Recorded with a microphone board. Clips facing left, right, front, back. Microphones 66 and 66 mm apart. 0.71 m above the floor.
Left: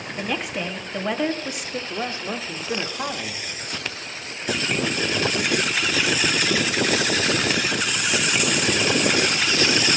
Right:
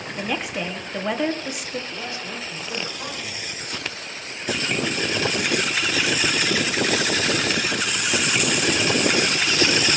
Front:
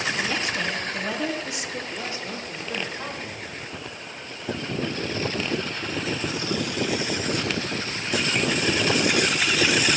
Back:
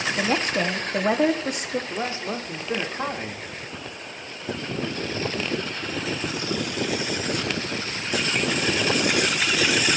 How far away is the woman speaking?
About 1.4 m.